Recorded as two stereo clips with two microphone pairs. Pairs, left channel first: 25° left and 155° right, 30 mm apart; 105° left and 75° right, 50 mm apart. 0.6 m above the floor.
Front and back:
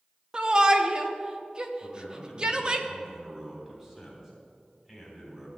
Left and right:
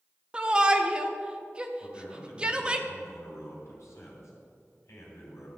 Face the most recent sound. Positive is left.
turn(degrees=125)